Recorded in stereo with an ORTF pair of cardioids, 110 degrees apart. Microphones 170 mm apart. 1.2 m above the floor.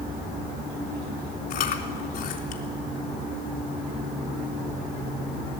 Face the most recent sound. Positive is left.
turn(degrees=65)